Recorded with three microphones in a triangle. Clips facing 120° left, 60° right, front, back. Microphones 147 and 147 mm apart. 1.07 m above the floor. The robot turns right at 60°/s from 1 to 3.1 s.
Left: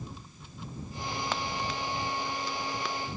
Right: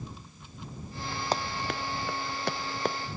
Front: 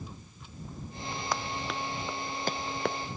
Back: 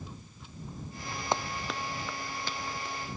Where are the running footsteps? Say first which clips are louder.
Right 5 dB, back 2 dB; 115° right; by 3.0 s 10° right.